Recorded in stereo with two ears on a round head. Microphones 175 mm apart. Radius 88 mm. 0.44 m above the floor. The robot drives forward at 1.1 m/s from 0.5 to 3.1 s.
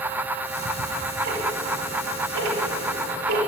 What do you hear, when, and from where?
0.5 s ticking: 45° right (ahead or behind), 2.5 m; by 3.4 s 50° right (ahead or behind), 2 m